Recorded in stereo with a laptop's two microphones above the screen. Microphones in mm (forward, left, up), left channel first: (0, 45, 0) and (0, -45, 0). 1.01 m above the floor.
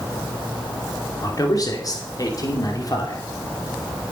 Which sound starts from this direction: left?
A man speaking, at 1.2 s.